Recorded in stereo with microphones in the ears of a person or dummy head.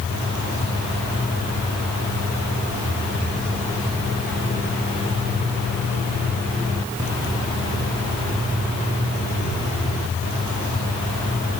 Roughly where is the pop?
No pop in this recording.